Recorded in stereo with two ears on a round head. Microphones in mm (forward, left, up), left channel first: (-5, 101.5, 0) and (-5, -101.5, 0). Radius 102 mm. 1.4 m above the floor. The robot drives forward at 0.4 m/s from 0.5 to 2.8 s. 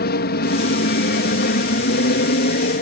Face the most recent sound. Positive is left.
turn(degrees=45)  # may be behind; listen again after turning